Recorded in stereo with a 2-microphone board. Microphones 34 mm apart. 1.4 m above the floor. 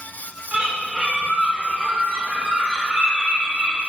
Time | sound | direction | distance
0.5 | a bird | 40° right (ahead or behind) | 2.5 m